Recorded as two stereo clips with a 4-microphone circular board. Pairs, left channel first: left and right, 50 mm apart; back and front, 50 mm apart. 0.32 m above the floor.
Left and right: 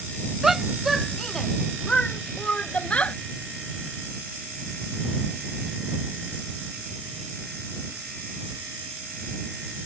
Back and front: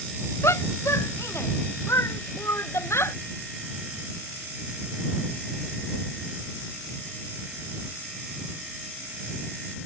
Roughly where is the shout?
Behind.